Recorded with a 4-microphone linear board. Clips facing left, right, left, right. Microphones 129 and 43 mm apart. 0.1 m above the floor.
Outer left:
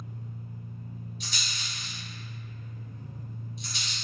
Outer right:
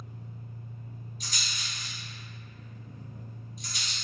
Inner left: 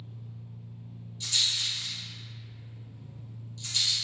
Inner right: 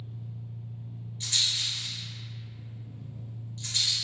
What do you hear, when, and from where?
0.0 s an engine running: 20° right (ahead or behind), 1.4 m
1.2 s a rattle: 40° right (ahead or behind), 1.9 m